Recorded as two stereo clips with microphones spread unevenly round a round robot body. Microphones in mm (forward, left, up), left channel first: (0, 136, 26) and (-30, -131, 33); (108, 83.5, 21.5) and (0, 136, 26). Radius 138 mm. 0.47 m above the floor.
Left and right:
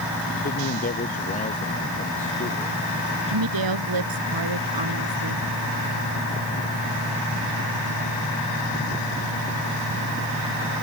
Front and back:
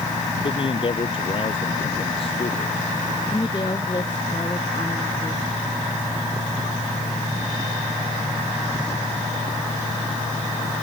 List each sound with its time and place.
0.4 s a man speaking: 20° left; by 2.8 s 15° left
3.3 s a woman speaking: 100° right